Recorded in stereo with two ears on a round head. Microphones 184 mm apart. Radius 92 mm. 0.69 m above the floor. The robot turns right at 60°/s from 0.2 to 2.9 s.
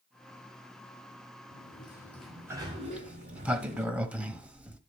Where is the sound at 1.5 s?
135° left, 4 m; by 3.9 s 140° right, 4 m.